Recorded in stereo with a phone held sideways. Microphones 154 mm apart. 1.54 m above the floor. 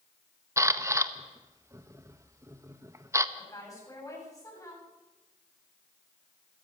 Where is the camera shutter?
20° right (ahead or behind), 0.8 m.